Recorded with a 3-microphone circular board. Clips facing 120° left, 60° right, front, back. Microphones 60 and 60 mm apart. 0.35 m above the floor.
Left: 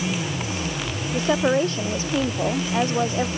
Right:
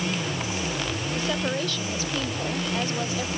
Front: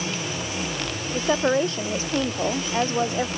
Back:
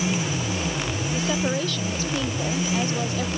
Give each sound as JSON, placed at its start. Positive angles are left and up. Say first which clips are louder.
{"t": 1.1, "sound": "a woman speaking", "louder": "left 9 dB, front 5 dB", "azimuth_deg": 60}